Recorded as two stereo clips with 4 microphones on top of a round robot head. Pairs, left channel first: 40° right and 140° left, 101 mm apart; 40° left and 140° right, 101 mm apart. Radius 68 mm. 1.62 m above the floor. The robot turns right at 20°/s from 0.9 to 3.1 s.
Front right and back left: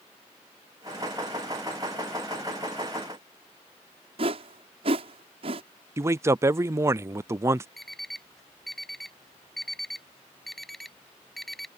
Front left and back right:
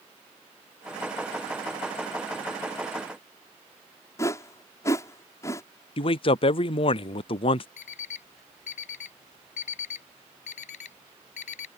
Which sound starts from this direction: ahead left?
An alarm clock, at 7.8 s.